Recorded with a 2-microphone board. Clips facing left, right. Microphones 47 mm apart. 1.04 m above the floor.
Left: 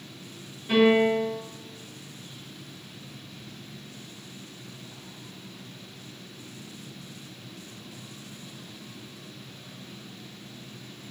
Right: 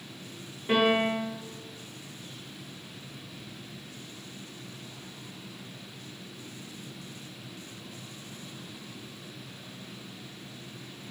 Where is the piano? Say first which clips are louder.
Left 4 dB; 40° right (ahead or behind), 1.7 m.